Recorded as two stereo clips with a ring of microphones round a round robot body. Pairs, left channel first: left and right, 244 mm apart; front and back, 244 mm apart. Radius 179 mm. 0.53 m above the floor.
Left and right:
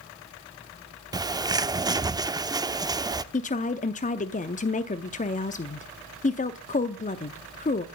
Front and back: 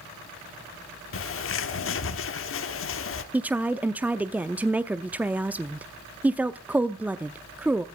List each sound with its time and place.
1.1 s a bird: 15° right, 0.9 m
3.3 s a woman speaking: 100° left, 0.7 m